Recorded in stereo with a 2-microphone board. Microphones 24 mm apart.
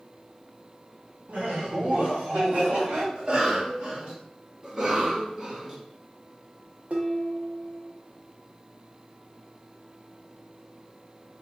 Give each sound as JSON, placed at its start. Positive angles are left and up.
{"t": 1.3, "sound": "laughter", "side_deg": -70, "distance_m": 1.6}
{"t": 3.1, "sound": "a cough", "side_deg": -40, "distance_m": 2.0}
{"t": 4.6, "sound": "a cough", "side_deg": -30, "distance_m": 2.0}
{"t": 6.9, "sound": "dishes clattering", "side_deg": -70, "distance_m": 1.1}